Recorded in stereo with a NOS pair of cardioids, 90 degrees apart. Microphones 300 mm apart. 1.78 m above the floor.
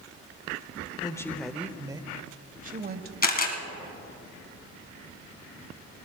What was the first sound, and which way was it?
A woman speaking, 15° left.